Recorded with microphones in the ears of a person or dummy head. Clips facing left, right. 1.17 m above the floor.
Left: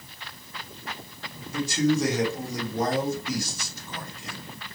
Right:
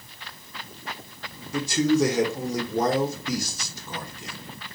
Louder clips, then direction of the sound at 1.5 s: Right 2 dB; 70° right (ahead or behind).